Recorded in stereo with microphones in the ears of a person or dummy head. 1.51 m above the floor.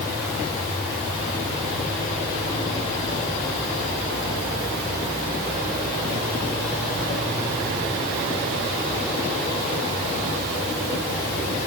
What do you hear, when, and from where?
Only background noise.